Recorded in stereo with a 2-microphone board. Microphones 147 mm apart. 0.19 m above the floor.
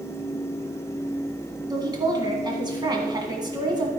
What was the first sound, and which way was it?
A woman speaking, 30° right (ahead or behind).